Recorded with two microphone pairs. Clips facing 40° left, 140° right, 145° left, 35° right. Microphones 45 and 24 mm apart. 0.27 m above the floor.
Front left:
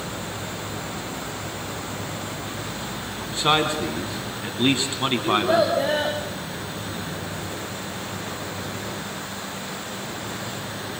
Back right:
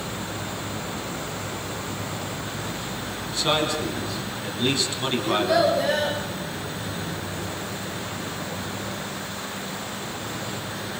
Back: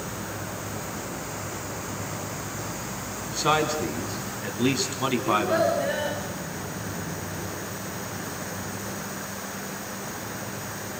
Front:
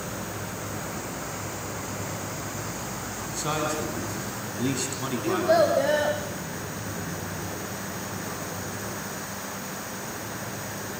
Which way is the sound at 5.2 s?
20° right.